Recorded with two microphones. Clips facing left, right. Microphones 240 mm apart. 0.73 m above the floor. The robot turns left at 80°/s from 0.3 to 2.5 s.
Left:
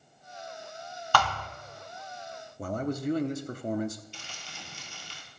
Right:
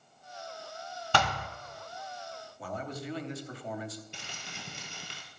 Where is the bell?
I don't hear a bell.